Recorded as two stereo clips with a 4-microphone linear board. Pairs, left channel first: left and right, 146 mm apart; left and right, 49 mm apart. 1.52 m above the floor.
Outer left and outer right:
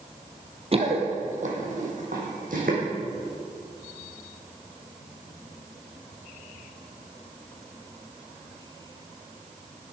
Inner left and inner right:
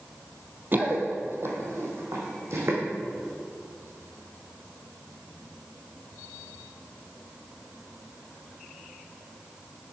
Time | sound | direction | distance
0.7 | running footsteps | 40° right (ahead or behind) | 2 m